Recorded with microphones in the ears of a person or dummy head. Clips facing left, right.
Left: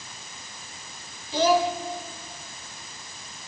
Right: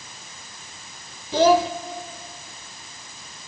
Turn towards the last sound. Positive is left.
turn(degrees=-45)  # may be behind; listen again after turning